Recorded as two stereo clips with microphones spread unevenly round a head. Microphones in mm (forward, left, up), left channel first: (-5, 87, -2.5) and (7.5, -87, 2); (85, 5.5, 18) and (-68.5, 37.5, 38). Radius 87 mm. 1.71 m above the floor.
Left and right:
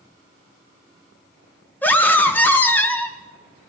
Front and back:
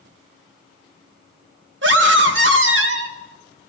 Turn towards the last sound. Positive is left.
turn(degrees=175)